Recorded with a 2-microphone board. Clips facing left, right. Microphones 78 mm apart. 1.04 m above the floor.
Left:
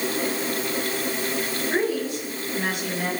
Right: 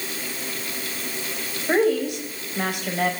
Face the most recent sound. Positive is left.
turn(degrees=-80)